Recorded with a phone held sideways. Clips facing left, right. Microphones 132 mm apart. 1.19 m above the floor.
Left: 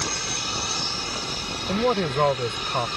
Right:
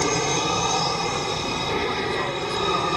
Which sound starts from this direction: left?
A man speaking, at 1.7 s.